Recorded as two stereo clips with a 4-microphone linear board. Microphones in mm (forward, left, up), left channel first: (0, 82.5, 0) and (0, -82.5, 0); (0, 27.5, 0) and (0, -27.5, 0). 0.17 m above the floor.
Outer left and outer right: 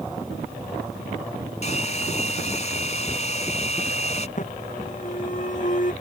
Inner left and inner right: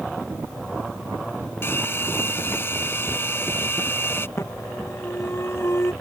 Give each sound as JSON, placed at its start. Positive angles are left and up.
{"t": 1.6, "sound": "a hair dryer", "side_deg": 45}
{"t": 4.4, "sound": "an alarm", "side_deg": 50}